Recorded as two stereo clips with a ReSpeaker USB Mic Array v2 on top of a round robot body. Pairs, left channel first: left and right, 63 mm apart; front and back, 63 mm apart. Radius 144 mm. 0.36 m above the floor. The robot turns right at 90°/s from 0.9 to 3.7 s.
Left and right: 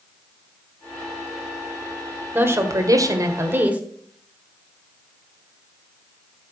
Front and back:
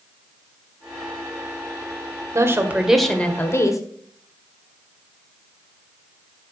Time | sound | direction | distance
2.4 | a woman speaking | 145° right | 1.8 m